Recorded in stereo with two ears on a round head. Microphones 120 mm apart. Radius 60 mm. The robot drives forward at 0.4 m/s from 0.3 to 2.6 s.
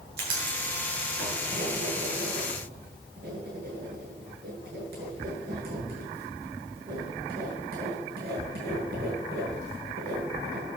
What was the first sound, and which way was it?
Writing, 75° right (ahead or behind).